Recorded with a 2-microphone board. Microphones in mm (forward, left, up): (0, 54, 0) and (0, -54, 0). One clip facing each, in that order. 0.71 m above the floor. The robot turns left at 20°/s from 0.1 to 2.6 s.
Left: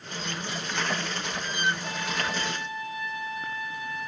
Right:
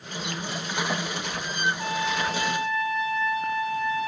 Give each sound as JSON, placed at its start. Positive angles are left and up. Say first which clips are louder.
{"t": 1.8, "sound": "a trumpet", "louder": "right 5 dB", "side_deg": -85, "distance_m": 3.0}